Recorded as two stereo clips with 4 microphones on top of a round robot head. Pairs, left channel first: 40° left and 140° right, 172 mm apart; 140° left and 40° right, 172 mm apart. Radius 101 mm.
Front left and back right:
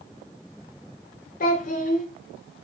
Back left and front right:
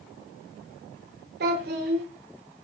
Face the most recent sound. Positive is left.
turn(degrees=-5)